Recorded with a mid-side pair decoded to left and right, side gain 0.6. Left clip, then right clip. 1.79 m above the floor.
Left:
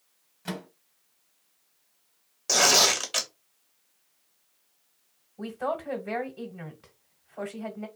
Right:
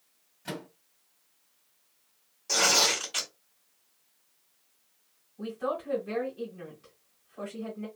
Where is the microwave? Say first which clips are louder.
Left 1 dB; 25° left, 1.1 m.